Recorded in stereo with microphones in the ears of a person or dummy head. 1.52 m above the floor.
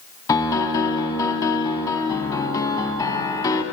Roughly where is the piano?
Centre.